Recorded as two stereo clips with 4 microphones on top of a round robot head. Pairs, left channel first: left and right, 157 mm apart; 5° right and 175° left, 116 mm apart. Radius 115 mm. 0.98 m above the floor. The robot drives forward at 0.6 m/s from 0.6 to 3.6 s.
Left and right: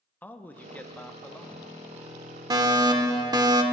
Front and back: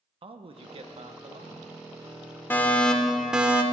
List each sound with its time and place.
0.2 s a man speaking: 165° left, 1.0 m; by 1.7 s 170° left, 1.6 m
2.5 s a fire alarm: 55° right, 1.2 m; by 3.6 s 125° right, 1.2 m